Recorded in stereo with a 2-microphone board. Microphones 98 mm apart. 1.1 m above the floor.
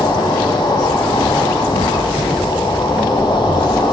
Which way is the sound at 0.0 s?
50° left (ahead or behind).